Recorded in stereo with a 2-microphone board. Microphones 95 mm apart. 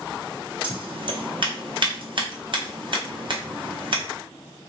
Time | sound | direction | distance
0.6 | scissors | 60° right (ahead or behind) | 1.1 m